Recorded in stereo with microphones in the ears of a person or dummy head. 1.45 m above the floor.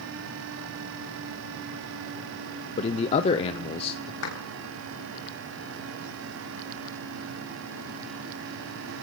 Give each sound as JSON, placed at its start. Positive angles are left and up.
{"t": 2.8, "sound": "a man speaking", "side_deg": 30, "distance_m": 0.5}
{"t": 4.2, "sound": "a clap", "side_deg": 70, "distance_m": 3.5}